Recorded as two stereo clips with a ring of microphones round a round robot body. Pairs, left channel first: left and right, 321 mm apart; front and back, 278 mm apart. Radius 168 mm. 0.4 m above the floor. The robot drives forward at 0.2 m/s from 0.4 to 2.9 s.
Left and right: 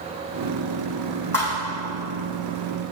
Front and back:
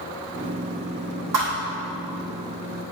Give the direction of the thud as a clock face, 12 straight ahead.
6 o'clock.